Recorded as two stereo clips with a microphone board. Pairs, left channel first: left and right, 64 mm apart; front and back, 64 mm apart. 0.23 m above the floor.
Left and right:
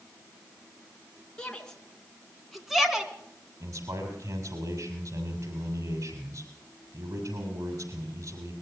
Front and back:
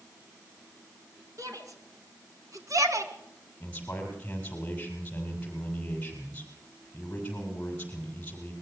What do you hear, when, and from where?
1.4 s a shout: 165° left, 3 m; by 3.1 s 170° right, 2.5 m
3.6 s a man speaking: 65° right, 6.5 m